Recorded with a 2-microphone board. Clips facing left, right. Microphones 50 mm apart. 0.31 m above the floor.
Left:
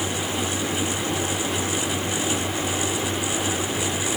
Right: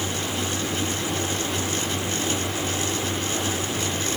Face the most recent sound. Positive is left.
No sound to turn to.